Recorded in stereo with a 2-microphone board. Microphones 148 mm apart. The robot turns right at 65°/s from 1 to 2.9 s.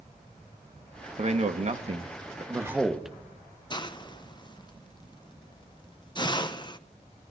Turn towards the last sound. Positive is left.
turn(degrees=30)  # may be behind; listen again after turning